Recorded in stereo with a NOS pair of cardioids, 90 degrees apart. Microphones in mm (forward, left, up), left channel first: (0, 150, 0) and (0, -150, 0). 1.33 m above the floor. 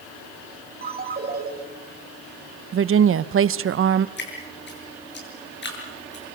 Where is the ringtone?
30° right, 5 m.